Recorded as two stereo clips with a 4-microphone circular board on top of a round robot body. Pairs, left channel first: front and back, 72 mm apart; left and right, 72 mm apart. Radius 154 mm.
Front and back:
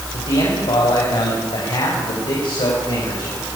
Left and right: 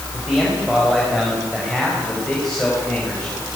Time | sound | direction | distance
0.1 | a man speaking | 10° right | 7 m